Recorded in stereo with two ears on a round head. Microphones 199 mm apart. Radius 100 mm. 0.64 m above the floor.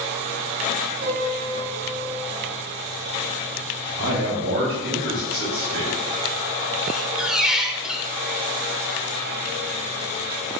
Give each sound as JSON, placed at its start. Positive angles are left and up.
{"t": 1.0, "sound": "a piano", "side_deg": -50, "distance_m": 4.5}
{"t": 4.0, "sound": "a man speaking", "side_deg": -50, "distance_m": 4.0}
{"t": 6.9, "sound": "a squeak", "side_deg": -5, "distance_m": 0.7}